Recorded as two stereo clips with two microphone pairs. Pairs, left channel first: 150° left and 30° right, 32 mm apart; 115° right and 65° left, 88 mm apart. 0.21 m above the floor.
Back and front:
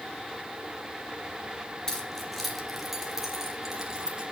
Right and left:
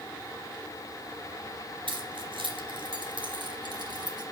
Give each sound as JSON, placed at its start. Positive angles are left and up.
{"t": 1.9, "sound": "keys jangling", "azimuth_deg": 75, "distance_m": 2.5}